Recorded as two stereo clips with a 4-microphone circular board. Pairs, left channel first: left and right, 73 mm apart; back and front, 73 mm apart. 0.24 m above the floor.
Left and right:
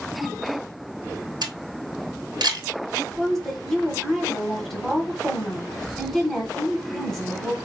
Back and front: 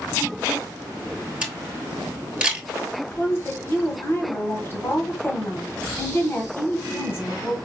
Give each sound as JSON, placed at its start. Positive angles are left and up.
{"t": 1.4, "sound": "a camera shutter", "azimuth_deg": -75, "distance_m": 1.1}
{"t": 3.1, "sound": "a woman speaking", "azimuth_deg": 170, "distance_m": 1.2}